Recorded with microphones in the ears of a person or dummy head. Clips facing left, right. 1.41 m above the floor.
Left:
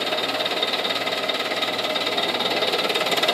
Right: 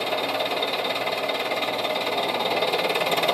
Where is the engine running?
10° left (ahead or behind), 2 m.